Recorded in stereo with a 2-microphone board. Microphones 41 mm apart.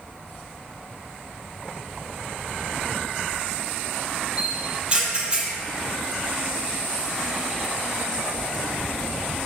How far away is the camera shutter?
About 3.5 m.